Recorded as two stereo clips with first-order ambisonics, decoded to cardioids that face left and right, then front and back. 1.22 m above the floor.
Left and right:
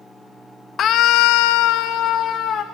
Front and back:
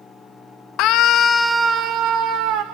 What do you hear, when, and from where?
0.8 s a scream: 35° left, 1.2 m; by 2.6 s 150° left, 1.9 m